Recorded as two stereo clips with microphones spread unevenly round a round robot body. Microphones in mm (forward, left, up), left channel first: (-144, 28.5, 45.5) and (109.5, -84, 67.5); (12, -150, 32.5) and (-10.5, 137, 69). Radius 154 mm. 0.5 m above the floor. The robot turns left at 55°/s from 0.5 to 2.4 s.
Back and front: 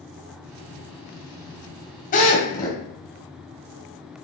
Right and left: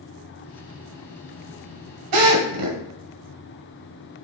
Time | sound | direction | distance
2.1 | a drill | 95° left | 2.5 m